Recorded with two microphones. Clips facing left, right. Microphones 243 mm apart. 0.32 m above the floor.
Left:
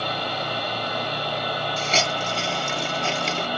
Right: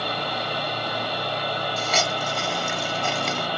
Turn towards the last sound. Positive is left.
turn(degrees=30)  # may be behind; listen again after turning